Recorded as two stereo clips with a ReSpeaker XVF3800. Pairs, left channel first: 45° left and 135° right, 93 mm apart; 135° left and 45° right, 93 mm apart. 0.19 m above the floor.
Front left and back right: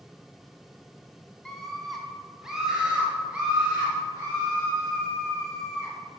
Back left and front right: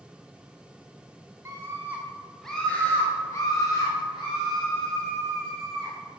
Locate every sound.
1.4 s a scream: 35° right, 1.7 m; by 5.9 s 155° left, 4 m